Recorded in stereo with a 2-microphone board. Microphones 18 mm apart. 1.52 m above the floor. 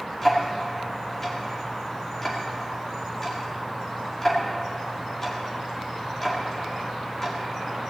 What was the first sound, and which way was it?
Ticking, 20° left (ahead or behind).